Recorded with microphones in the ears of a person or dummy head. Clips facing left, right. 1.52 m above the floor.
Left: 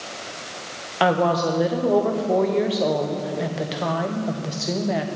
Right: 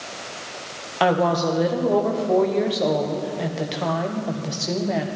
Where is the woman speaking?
5° left (ahead or behind), 1.0 m.